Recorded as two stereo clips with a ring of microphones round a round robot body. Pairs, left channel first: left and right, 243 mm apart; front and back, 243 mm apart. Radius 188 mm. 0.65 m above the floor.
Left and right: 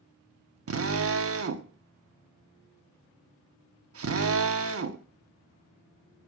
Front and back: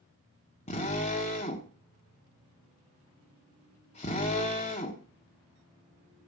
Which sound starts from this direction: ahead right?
A drill, at 0.7 s.